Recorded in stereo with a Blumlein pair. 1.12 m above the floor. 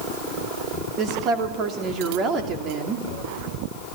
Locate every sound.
1.0 s a woman speaking: 30° right, 2.5 m